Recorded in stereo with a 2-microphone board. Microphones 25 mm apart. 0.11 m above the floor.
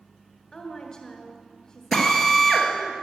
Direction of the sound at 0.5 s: 20° left (ahead or behind).